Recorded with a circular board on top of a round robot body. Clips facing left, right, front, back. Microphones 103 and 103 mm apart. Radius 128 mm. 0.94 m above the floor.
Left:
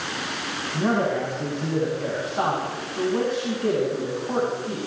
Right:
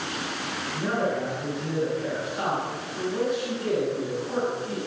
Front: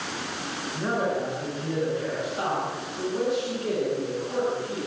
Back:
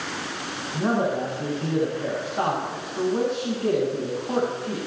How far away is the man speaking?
About 8 m.